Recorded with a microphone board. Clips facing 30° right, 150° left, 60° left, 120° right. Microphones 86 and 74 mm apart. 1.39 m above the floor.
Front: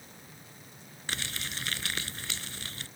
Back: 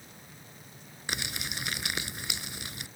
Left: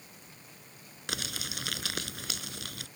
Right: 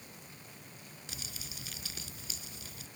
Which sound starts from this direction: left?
Crumpling, at 1.1 s.